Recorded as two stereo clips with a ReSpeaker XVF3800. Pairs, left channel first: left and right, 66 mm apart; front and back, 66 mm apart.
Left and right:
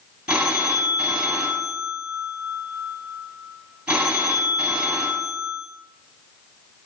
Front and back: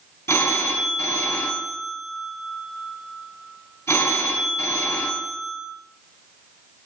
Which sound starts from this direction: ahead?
A phone ringing, at 0.3 s.